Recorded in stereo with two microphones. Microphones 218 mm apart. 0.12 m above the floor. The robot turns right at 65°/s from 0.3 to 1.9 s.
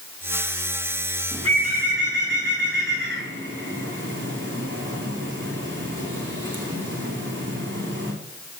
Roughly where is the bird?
Centre.